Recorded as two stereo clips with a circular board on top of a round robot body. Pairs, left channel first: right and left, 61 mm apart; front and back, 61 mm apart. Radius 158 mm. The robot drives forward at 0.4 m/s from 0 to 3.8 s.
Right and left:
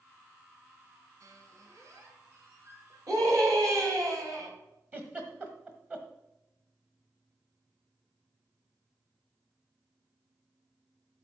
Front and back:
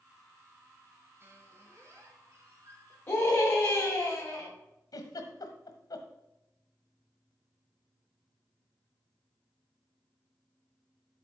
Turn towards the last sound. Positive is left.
turn(degrees=25)